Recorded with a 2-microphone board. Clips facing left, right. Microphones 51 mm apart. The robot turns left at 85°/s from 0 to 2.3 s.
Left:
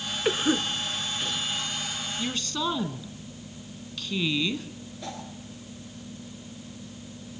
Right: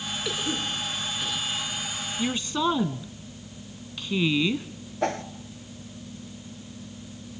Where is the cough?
35° left (ahead or behind), 1.3 m; by 1.5 s 5° right (ahead or behind), 1.3 m.